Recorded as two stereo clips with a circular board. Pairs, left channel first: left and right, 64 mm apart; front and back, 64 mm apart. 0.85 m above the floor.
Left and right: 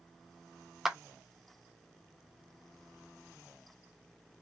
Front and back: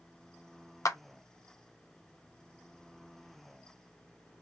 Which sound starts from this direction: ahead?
A clap, at 0.8 s.